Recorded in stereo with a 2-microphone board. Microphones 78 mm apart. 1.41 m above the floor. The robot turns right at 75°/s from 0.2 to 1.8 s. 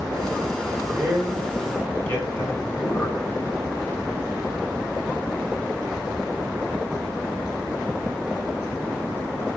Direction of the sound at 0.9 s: 40° right.